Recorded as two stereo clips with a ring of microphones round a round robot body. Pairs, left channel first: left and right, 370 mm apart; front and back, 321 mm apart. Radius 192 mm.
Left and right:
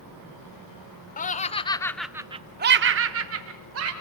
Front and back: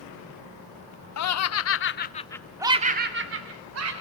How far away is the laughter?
About 1.2 m.